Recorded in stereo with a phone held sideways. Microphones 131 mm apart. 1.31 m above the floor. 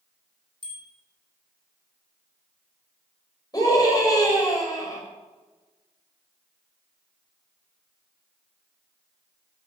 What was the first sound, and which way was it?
A bicycle bell, 40° right (ahead or behind).